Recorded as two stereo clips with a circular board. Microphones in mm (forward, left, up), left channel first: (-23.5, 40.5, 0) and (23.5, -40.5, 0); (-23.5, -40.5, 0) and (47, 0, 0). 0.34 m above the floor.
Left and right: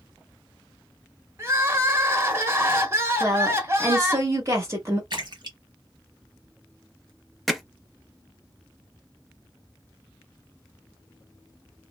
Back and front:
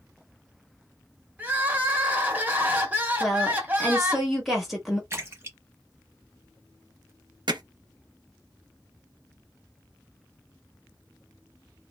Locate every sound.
1.4 s crying: 20° right, 0.7 m
3.2 s a woman speaking: 60° right, 1.2 m
5.1 s a splash: 25° right, 0.9 m
7.5 s hammering: 30° left, 0.5 m